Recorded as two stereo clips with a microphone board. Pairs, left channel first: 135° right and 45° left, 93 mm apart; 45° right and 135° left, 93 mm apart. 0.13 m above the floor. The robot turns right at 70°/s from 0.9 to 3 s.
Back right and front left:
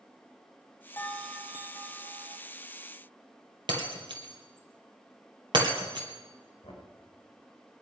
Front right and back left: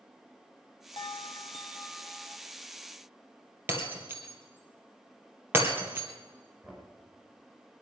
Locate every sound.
1.0 s a bell: 70° right, 1.0 m; by 2.4 s 30° left, 1.0 m
3.7 s breaking glass: 70° left, 2.5 m
6.6 s knocking: 160° right, 5.5 m